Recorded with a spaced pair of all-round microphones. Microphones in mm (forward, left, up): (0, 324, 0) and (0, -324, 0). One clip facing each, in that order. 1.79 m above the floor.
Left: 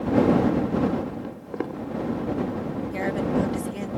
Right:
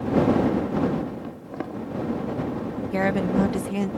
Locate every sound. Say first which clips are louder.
1.2 s footsteps: left 2 dB; 10° right (ahead or behind)
2.9 s a woman speaking: right 2 dB; 80° right